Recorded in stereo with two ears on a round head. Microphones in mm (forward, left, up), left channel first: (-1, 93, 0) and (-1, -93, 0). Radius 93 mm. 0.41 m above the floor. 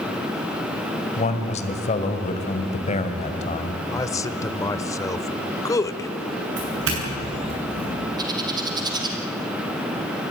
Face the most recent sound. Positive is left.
turn(degrees=-20)  # may be behind; listen again after turning